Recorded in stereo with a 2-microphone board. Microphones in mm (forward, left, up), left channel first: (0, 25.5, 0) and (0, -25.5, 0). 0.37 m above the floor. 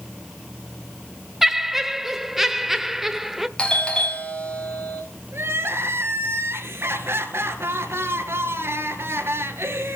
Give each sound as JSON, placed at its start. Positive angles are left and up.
{"t": 1.4, "sound": "laughter", "side_deg": -5, "distance_m": 0.9}
{"t": 3.6, "sound": "a doorbell", "side_deg": 20, "distance_m": 1.8}
{"t": 5.3, "sound": "crying", "side_deg": -55, "distance_m": 2.5}